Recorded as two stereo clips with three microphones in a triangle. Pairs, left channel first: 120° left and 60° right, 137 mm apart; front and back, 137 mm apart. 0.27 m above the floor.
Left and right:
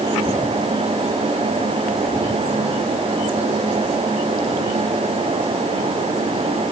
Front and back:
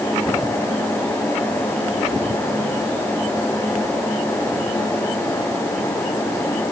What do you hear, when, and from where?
Only background noise.